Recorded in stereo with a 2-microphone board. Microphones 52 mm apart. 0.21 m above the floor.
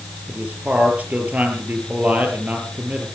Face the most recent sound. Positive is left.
turn(degrees=-35)  # may be behind; listen again after turning